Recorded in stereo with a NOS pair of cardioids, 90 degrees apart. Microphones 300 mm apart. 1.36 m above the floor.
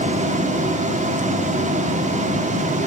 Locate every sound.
0.0 s running water: 25° right, 2 m